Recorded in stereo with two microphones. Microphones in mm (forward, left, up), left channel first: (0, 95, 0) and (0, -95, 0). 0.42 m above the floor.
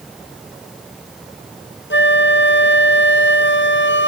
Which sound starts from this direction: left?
A flute, at 1.9 s.